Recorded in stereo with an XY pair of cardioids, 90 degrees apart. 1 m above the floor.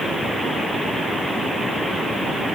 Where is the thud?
No thud in this recording.